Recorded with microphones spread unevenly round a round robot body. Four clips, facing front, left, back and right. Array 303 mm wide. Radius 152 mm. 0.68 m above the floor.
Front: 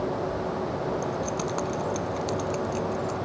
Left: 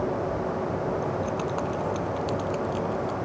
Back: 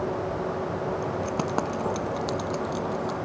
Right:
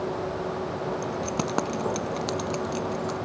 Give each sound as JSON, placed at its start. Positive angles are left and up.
{"t": 1.0, "sound": "keys jangling", "azimuth_deg": -120}